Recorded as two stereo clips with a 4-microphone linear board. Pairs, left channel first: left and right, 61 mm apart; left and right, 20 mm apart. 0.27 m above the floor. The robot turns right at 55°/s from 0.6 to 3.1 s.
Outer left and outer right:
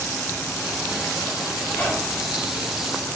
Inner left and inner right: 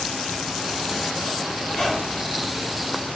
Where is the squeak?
135° left, 2.0 m; by 2.4 s straight behind, 2.0 m.